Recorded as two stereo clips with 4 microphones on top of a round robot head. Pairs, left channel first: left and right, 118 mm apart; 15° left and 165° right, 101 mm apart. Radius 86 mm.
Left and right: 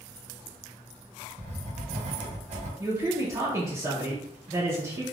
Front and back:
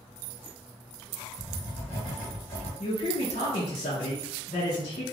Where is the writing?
65° right, 1.3 m.